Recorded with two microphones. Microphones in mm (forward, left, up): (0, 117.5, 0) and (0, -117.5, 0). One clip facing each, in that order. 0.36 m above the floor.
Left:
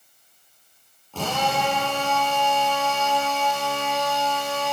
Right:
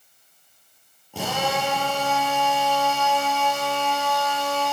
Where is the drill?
10° right (ahead or behind), 6 m.